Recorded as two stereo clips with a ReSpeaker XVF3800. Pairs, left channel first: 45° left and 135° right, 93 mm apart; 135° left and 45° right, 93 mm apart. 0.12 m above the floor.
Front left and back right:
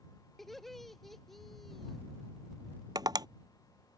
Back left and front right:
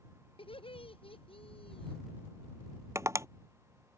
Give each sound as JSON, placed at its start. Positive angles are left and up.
{"t": 0.4, "sound": "laughter", "azimuth_deg": 135}
{"t": 3.0, "sound": "tapping", "azimuth_deg": -100}